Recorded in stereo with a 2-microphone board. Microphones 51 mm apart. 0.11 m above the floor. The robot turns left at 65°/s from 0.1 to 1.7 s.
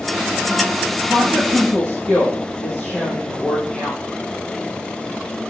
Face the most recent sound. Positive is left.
turn(degrees=165)